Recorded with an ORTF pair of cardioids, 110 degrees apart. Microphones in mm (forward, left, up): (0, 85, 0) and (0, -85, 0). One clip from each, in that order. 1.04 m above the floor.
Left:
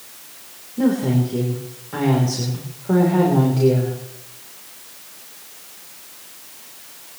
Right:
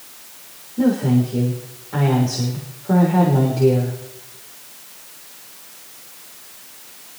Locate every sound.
0.8 s a woman speaking: straight ahead, 3.5 m